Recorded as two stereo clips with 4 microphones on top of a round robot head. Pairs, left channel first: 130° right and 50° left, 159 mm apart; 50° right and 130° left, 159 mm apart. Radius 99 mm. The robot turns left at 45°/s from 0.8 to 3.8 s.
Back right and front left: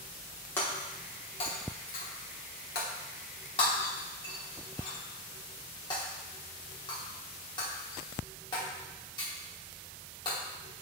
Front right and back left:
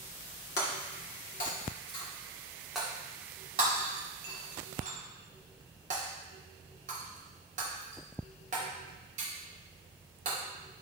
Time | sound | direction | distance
0.6 | breaking glass | 55° right | 1.2 m